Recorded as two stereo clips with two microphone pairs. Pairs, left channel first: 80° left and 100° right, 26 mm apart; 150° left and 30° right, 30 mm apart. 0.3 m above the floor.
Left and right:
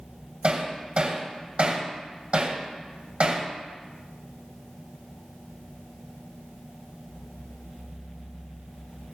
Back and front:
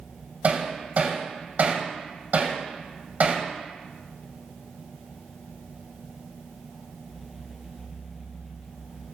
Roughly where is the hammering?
Ahead right.